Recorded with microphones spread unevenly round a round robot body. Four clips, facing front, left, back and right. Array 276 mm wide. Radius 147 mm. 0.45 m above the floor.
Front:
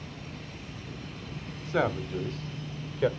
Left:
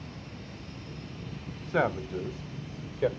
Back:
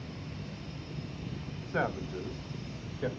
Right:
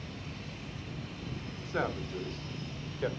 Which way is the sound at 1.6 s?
65° left.